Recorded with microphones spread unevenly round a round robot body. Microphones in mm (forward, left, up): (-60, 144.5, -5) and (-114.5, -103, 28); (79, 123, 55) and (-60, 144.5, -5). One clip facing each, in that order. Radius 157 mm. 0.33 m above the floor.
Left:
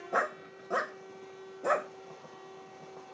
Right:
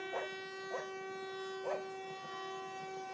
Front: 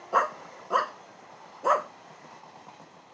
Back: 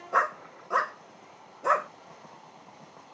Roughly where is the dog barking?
Ahead left.